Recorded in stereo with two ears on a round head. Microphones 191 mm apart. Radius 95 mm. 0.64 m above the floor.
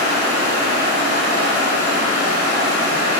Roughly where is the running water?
Right.